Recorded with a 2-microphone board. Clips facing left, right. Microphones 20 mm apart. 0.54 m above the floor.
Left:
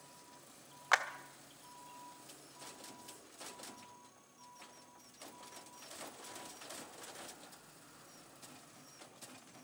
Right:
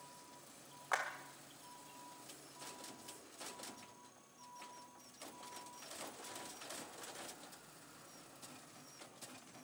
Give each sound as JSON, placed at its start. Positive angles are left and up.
{"t": 0.9, "sound": "a clap", "side_deg": 55, "distance_m": 1.2}